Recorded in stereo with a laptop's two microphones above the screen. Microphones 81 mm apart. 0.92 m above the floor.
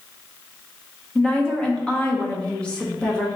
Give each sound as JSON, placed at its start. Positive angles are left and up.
{"t": 1.1, "sound": "a woman speaking", "side_deg": 10, "distance_m": 0.8}